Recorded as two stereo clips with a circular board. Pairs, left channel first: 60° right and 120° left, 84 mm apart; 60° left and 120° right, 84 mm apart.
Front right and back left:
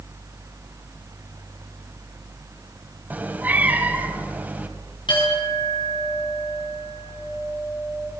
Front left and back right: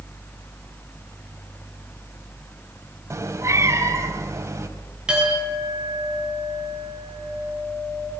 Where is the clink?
40° right, 10 m.